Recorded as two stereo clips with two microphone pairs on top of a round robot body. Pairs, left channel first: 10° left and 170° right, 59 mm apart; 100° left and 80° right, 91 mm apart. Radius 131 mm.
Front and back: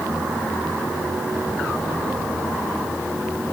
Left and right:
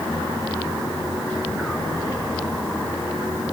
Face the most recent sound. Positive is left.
No sound to turn to.